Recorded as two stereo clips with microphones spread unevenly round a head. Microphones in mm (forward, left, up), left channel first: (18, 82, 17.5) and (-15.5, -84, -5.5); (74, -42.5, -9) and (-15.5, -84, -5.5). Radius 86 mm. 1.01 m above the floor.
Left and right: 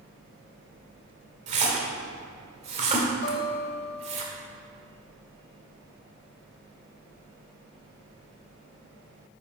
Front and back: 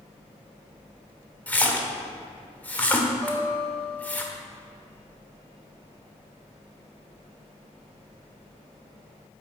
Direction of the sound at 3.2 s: 105° left.